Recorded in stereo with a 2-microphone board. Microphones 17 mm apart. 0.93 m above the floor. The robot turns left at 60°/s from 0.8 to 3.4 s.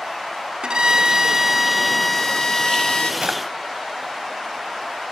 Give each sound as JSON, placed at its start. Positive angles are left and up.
{"t": 0.6, "sound": "a violin", "azimuth_deg": -120, "distance_m": 1.5}
{"t": 3.2, "sound": "a drawer", "side_deg": -75, "distance_m": 2.5}